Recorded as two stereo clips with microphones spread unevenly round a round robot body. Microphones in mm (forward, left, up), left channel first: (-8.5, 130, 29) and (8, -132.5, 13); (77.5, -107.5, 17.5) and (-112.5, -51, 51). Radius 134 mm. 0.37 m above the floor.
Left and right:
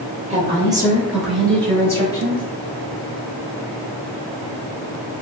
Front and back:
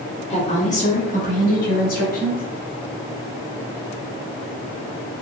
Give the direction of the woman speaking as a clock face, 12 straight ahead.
1 o'clock.